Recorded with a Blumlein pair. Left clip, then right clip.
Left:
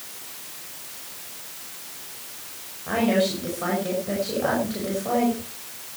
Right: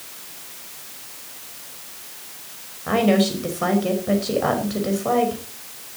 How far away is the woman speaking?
About 5.5 m.